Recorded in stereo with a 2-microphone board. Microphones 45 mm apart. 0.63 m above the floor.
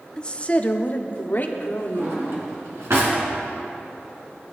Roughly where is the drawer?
Right.